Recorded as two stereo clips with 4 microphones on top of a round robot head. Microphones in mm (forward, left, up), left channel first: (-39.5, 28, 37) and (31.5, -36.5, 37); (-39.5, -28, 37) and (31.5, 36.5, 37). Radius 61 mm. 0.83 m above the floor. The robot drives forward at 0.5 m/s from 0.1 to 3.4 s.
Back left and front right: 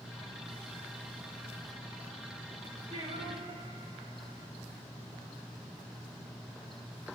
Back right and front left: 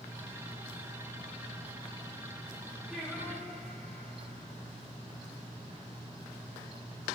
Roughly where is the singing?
Ahead right.